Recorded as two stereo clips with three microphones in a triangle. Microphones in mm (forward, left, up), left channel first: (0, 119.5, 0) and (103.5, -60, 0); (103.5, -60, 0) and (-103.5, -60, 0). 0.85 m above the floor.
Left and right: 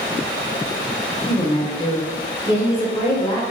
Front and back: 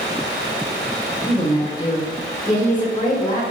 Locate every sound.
1.3 s a woman speaking: 60° left, 0.7 m